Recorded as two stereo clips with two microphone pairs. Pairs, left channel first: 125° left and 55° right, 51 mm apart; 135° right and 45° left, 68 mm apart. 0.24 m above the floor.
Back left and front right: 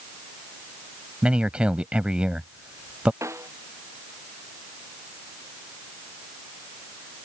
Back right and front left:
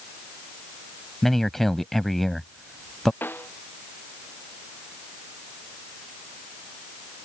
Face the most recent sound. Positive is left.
turn(degrees=-70)